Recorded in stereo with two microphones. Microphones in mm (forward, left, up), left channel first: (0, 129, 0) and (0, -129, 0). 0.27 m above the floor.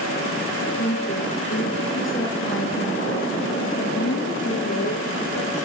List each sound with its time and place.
0.8 s a woman speaking: 40° left (ahead or behind), 6 m; by 5.7 s 65° left (ahead or behind), 4 m